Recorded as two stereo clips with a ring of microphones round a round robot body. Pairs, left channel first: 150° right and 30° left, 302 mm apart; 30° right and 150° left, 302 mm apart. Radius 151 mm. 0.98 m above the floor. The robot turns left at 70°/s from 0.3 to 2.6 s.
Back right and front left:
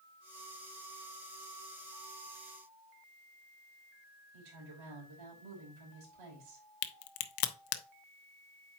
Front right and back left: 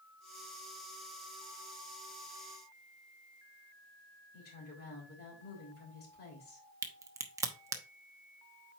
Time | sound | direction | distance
4.3 | a woman speaking | 30° left | 3.5 m
6.8 | a crack | 130° right | 0.8 m